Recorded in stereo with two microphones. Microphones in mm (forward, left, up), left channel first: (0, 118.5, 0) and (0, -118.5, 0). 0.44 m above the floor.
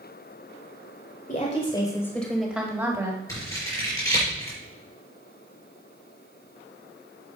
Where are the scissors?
15° left (ahead or behind), 5 m.